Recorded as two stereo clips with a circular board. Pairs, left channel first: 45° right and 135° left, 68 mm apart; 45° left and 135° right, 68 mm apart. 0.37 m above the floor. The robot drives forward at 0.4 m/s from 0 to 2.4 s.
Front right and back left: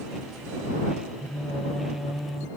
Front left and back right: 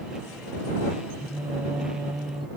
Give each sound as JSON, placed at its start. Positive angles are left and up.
{"t": 1.2, "sound": "singing", "azimuth_deg": -110}